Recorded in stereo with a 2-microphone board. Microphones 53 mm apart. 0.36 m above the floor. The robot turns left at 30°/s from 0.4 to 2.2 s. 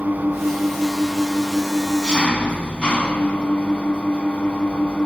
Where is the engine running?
150° right, 0.9 m; by 5.1 s 160° left, 0.9 m.